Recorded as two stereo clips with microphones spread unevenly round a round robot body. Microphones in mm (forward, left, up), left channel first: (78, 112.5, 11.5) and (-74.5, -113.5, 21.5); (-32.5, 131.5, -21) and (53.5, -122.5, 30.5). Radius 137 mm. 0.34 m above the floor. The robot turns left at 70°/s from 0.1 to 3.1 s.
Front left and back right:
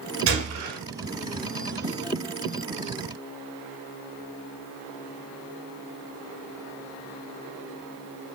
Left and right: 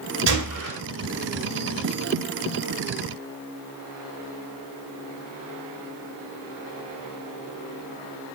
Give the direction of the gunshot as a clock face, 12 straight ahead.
3 o'clock.